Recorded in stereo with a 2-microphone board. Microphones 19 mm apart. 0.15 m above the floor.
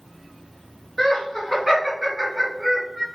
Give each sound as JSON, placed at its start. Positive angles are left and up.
{"t": 1.0, "sound": "laughter", "side_deg": -5, "distance_m": 1.6}